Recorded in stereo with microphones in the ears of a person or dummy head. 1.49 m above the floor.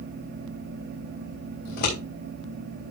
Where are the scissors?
60° left (ahead or behind), 3.5 m.